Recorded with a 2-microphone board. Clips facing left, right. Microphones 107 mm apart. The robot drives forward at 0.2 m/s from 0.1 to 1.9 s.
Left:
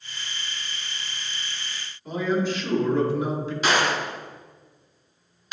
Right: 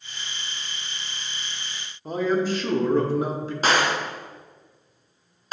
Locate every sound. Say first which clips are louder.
2.0 s a man speaking: right 2 dB; 40° right (ahead or behind), 0.9 m
3.6 s a gunshot: right 1 dB; 40° right (ahead or behind), 0.7 m